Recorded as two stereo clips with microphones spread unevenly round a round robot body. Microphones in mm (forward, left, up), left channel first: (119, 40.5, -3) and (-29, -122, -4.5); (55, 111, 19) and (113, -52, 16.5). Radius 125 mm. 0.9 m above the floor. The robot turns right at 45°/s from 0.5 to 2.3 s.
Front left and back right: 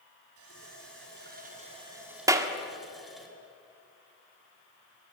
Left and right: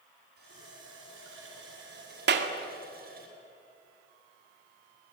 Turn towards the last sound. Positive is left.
turn(degrees=-55)